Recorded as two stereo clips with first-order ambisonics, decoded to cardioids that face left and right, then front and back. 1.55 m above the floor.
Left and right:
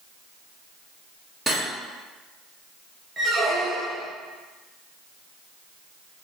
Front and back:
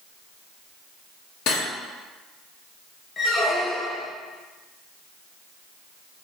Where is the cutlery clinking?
Straight ahead, 1.0 m.